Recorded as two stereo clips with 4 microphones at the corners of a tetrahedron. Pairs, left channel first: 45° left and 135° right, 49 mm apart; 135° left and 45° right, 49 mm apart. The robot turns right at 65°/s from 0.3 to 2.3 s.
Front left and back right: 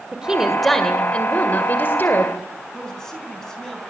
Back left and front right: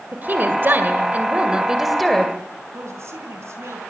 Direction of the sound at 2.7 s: 35° right.